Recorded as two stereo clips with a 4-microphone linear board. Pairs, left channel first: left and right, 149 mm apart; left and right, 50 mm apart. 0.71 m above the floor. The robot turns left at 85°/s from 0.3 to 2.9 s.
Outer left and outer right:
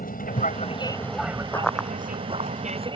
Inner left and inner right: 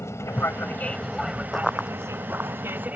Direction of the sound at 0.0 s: 75° left.